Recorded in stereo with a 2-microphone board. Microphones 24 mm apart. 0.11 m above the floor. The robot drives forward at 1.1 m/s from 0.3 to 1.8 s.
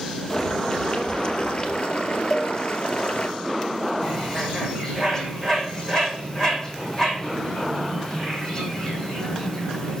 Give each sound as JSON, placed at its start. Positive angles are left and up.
{"t": 0.3, "sound": "boiling", "side_deg": 30, "distance_m": 3.0}
{"t": 2.3, "sound": "a cowbell", "side_deg": 25, "distance_m": 1.5}
{"t": 4.0, "sound": "a bird", "side_deg": 25, "distance_m": 4.0}